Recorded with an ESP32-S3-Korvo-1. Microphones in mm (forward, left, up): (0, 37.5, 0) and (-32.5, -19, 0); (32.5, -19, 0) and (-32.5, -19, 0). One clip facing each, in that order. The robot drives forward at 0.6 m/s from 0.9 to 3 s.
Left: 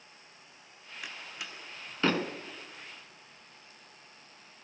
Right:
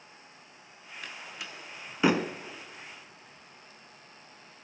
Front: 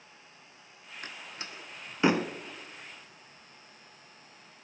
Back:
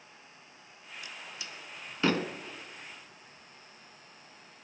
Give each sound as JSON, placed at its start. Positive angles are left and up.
{"t": 1.0, "sound": "a door slam", "azimuth_deg": -20, "distance_m": 1.2}